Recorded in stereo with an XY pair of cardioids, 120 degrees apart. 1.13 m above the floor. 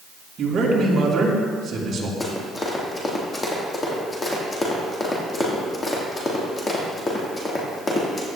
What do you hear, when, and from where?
0.4 s a man speaking: 45° right, 3.5 m
2.2 s running footsteps: 25° left, 3.5 m